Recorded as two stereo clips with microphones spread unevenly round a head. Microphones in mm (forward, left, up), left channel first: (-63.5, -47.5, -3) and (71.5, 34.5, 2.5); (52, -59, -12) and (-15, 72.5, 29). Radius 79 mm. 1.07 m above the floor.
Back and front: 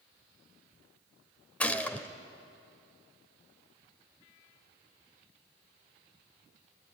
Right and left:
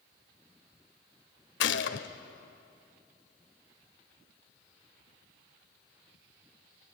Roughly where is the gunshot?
Ahead right.